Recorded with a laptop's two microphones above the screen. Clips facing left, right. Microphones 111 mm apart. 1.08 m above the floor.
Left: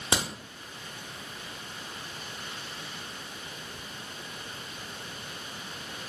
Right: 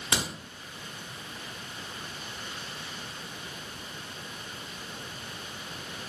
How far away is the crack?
About 0.8 m.